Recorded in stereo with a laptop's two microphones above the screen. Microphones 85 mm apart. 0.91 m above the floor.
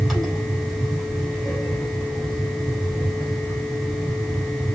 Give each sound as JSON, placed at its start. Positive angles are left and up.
{"t": 0.0, "sound": "a fan", "side_deg": 0, "distance_m": 2.5}